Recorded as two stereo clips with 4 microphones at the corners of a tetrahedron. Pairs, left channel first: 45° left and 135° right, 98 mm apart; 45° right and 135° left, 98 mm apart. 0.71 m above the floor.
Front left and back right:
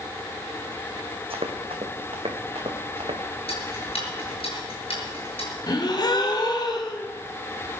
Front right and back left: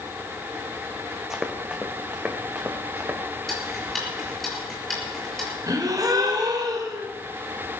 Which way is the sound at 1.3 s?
140° right.